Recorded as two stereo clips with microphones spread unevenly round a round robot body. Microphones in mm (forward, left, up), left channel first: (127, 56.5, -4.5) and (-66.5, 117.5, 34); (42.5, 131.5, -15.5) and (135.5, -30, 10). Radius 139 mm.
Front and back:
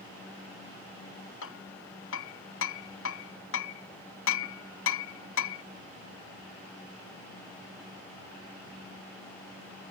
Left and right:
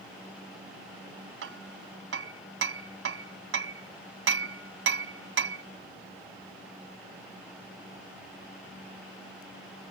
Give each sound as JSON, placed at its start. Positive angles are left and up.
{"t": 1.4, "sound": "hammering", "azimuth_deg": -65}